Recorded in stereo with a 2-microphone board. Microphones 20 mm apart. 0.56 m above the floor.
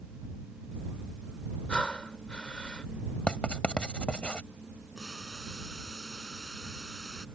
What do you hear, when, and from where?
1.7 s breathing: 60° left (ahead or behind)
3.3 s writing: 60° left (ahead or behind)
5.0 s boiling: 35° left (ahead or behind)